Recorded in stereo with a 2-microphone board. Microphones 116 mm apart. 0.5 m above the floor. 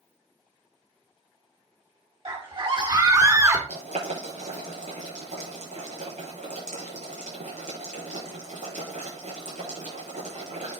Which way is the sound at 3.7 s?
85° right.